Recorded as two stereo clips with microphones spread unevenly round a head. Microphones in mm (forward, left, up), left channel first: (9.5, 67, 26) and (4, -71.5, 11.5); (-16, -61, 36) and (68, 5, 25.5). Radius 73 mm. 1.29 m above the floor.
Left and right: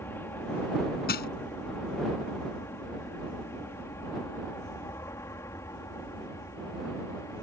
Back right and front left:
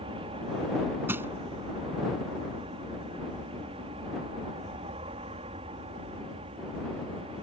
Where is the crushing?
115° left.